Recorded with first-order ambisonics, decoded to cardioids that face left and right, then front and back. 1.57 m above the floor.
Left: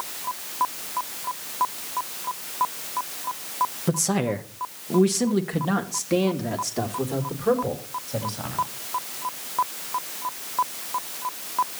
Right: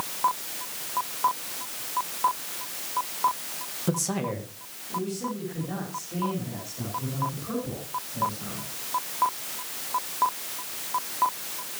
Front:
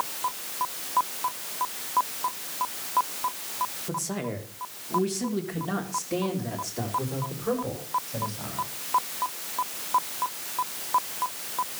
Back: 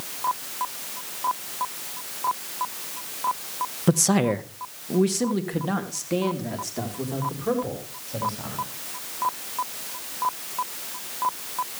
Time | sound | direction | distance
3.9 | a man speaking | 170° left | 1.3 m